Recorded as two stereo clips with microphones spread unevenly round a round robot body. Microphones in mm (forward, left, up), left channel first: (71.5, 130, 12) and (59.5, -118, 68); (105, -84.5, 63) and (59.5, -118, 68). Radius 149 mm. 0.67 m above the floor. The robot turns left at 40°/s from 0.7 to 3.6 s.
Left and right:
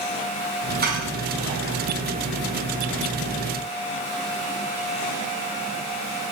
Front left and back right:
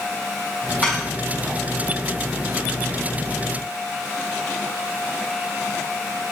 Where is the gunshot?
I don't hear a gunshot.